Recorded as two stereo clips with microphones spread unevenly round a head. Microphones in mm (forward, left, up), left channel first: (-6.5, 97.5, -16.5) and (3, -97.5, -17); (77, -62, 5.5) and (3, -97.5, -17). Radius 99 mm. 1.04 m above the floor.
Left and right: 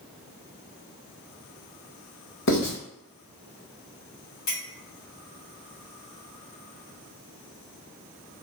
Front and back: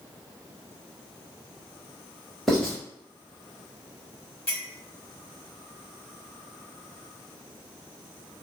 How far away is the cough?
No cough in this recording.